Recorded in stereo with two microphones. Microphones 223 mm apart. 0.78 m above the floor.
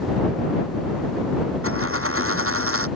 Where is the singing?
No singing in this recording.